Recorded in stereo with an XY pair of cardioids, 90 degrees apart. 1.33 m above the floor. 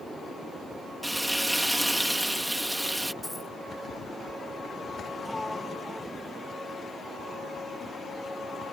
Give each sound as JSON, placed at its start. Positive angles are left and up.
{"t": 1.0, "sound": "frying", "azimuth_deg": -5}
{"t": 3.2, "sound": "a dropped coin", "azimuth_deg": 20}
{"t": 5.2, "sound": "a sliding door", "azimuth_deg": 10}